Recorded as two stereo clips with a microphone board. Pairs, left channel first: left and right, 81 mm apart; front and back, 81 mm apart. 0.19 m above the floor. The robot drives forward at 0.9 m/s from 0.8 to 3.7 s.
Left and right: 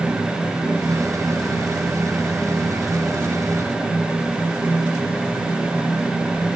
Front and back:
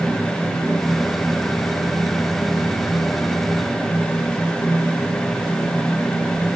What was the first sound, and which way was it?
Only background noise.